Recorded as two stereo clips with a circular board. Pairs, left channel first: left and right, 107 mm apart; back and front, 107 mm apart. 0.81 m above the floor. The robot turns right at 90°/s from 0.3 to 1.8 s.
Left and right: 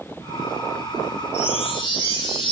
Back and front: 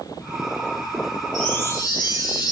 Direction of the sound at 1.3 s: 90° left.